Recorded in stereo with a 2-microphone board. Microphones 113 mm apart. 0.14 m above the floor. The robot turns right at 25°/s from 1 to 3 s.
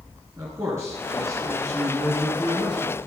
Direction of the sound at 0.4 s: 130° right.